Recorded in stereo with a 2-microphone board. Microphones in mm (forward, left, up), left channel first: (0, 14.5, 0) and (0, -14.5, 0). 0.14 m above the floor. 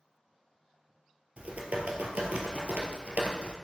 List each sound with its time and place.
1.4 s typing on a keyboard: 60° right (ahead or behind), 1.3 m